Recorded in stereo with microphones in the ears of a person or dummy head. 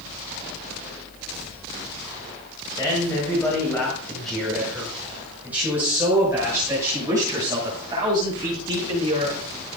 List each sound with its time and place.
2.8 s a man speaking: 20° left (ahead or behind), 5.5 m; by 9.4 s 30° right (ahead or behind), 10.5 m